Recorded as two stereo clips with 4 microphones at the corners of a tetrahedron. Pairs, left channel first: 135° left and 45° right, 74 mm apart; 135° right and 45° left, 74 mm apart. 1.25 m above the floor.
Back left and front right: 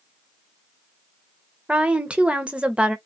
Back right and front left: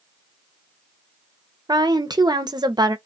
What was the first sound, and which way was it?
A woman speaking, 30° left.